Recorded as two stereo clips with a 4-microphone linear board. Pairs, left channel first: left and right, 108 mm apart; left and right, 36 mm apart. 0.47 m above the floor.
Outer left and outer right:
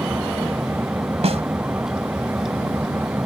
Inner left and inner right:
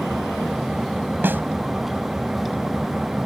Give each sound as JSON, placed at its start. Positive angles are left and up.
{"t": 0.0, "sound": "an engine running", "side_deg": -15}
{"t": 1.2, "sound": "a snare drum", "side_deg": -70}